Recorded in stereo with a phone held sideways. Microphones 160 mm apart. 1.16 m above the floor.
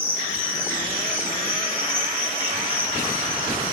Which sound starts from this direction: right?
An insect, at 0.0 s.